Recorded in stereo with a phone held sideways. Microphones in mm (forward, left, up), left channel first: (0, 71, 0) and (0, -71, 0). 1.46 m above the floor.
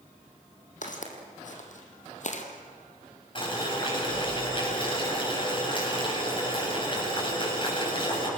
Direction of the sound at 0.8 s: 60° left (ahead or behind).